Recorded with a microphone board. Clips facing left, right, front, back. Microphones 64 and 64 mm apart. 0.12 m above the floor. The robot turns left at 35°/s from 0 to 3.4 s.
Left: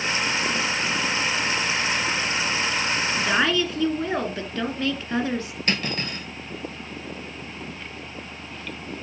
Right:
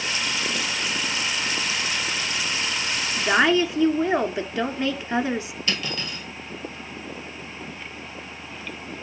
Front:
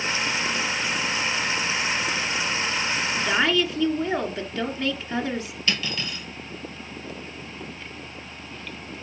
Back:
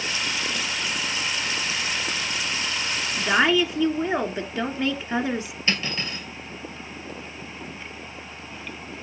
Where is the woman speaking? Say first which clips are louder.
Right 4 dB, back 3 dB; 135° right, 1.1 m; by 5.5 s 140° right, 1.1 m.